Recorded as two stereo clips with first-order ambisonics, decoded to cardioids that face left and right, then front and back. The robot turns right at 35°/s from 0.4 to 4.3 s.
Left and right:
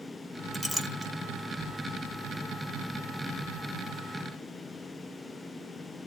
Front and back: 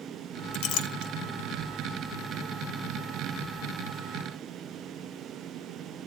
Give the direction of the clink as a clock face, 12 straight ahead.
12 o'clock.